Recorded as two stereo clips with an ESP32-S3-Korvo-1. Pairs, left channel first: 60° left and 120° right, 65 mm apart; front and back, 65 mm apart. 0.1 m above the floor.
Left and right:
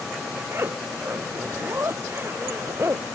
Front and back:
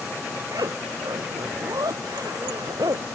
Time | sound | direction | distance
0.5 | a zipper | 170° right | ?